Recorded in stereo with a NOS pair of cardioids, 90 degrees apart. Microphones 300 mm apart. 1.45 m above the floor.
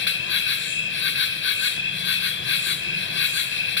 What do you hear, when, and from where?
0.0 s an insect: 40° left, 0.9 m